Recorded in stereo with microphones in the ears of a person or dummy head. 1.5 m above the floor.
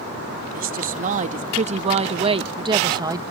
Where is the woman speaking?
45° right (ahead or behind); by 3.2 s 15° right (ahead or behind).